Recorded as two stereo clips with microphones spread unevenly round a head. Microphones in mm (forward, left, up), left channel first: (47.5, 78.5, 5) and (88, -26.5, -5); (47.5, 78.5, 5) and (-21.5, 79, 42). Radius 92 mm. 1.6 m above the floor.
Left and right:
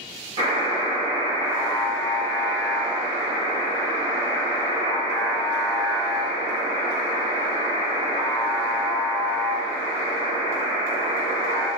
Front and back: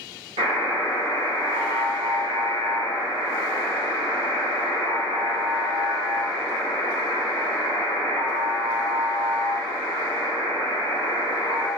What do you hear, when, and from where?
0.4 s a buzzer: 135° right, 1.3 m